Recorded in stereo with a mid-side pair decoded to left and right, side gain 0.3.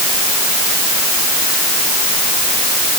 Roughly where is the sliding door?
No sliding door in this recording.